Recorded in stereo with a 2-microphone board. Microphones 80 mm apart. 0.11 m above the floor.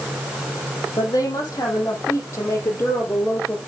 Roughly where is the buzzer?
I don't hear a buzzer.